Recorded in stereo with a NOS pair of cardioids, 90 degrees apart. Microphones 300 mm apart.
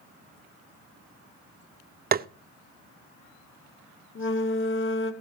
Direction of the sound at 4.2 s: 40° left.